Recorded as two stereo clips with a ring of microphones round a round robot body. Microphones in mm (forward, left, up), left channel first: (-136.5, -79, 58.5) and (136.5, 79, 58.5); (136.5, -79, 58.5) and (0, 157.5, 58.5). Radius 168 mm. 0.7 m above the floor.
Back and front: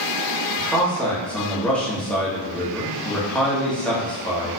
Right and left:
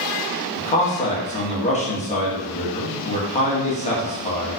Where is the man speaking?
70° right, 1.1 m.